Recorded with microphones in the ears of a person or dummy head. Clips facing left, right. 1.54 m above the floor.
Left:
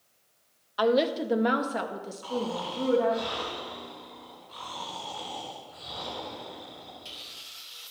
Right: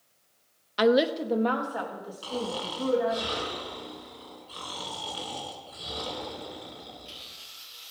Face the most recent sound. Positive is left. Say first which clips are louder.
# left 1 dB
turn(degrees=-40)  # may be behind; listen again after turning